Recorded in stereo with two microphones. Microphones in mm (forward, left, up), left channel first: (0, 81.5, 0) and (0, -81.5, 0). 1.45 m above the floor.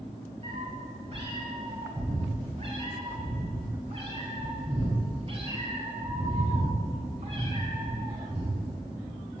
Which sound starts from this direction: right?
A cat meowing, at 0.4 s.